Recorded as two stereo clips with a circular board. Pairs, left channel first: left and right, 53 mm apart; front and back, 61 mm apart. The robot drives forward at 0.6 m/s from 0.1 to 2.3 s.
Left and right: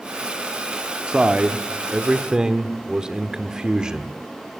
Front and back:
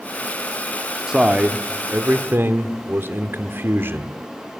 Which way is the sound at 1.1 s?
120° right.